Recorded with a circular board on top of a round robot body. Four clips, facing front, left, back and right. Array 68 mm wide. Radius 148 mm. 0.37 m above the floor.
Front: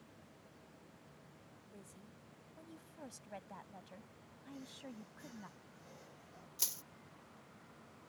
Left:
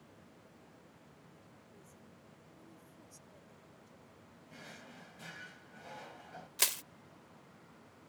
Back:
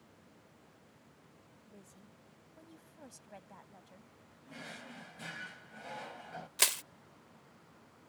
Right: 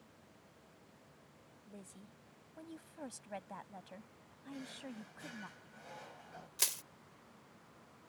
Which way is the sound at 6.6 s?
160° left.